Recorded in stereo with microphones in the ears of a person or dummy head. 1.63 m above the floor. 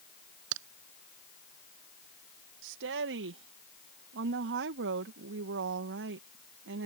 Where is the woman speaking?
65° right (ahead or behind).